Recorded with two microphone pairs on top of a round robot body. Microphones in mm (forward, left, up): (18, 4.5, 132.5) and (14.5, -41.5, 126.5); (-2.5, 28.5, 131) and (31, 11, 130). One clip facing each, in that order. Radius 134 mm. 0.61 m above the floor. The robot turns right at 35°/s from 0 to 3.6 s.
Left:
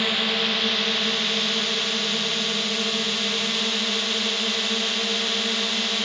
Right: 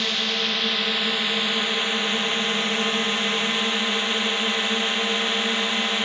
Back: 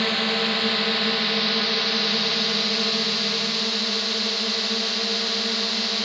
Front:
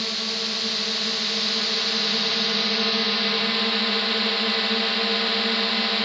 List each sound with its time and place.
0.0 s a drone: 165° left; by 6.1 s 70° right